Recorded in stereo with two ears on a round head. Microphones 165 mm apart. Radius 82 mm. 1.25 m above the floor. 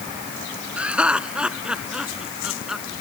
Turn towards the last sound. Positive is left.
turn(degrees=0)  # may be behind; listen again after turning